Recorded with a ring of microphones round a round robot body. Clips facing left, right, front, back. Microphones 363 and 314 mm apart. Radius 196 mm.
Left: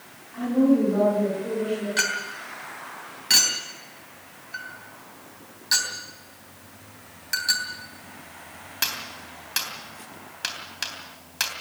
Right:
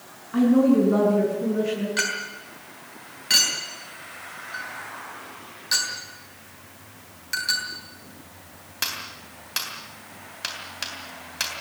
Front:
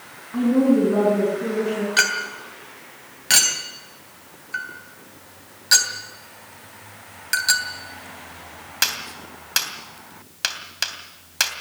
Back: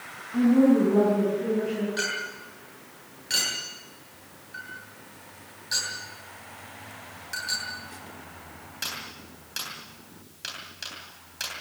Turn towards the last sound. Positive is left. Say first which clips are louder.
# right 1 dB, front 2 dB
turn(degrees=10)